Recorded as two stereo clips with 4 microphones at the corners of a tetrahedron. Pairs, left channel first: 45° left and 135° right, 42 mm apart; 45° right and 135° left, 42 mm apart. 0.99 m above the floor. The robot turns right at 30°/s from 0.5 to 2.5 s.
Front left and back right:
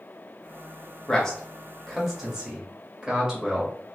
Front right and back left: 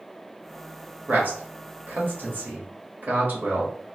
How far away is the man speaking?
About 1.0 m.